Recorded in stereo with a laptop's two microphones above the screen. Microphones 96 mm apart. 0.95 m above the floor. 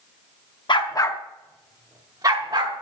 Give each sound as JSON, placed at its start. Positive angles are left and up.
{"t": 0.7, "sound": "a dog barking", "side_deg": 55, "distance_m": 0.7}